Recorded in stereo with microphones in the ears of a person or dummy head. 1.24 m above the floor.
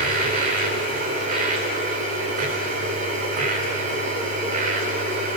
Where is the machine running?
45° right (ahead or behind), 2.5 m.